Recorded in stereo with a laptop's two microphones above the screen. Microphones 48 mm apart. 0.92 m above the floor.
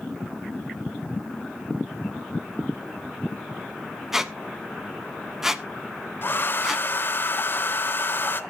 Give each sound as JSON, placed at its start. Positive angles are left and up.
{"t": 4.1, "sound": "a squeak", "side_deg": -10, "distance_m": 1.1}
{"t": 6.2, "sound": "a hair dryer", "side_deg": 45, "distance_m": 0.9}